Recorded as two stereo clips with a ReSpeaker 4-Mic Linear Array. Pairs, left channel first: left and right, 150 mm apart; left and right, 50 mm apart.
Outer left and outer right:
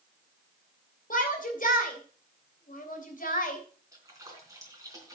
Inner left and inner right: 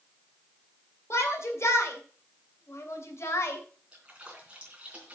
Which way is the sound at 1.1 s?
65° left (ahead or behind).